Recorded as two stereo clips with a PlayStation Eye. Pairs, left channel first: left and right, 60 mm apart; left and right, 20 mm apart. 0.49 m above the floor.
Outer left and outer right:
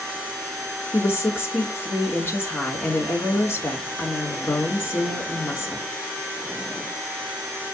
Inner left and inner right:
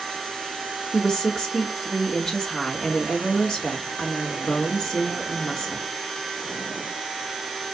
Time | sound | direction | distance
0.9 | a woman speaking | 45° left (ahead or behind) | 1.5 m